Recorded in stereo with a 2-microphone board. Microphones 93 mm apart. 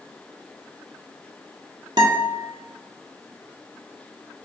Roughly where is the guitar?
Right.